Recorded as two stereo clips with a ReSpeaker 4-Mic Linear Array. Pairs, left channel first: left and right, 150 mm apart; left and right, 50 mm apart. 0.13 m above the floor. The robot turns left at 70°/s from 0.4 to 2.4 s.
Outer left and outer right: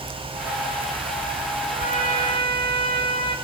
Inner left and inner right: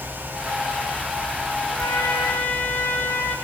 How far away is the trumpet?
About 3.5 m.